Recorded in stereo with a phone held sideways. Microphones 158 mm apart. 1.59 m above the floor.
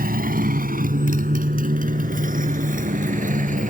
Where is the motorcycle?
65° right (ahead or behind); by 3.7 s 55° right (ahead or behind).